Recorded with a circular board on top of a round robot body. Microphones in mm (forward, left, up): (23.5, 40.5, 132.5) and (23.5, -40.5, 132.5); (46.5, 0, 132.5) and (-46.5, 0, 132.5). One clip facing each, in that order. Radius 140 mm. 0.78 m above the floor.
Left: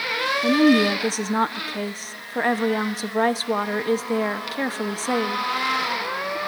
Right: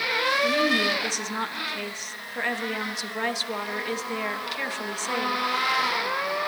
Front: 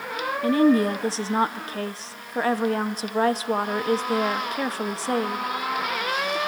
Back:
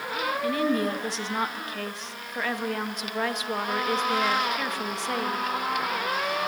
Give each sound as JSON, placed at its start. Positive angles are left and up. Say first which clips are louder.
{"t": 0.4, "sound": "a woman speaking", "louder": "left 11 dB, front 8 dB", "azimuth_deg": 45, "distance_m": 1.5}